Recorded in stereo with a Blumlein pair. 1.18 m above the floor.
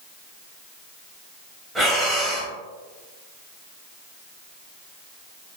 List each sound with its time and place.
1.8 s breathing: 5° right, 0.8 m